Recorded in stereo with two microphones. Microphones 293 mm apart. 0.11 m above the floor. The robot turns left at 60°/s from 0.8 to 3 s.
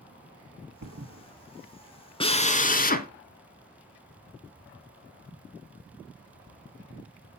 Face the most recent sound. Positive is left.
turn(degrees=95)